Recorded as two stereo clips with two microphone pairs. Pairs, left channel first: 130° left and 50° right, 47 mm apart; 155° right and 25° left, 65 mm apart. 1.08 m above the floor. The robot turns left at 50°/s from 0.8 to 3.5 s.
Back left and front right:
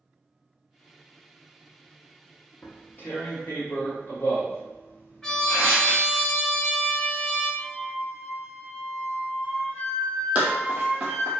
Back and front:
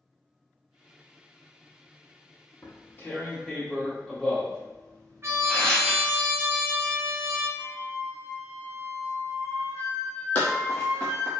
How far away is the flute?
About 1.6 m.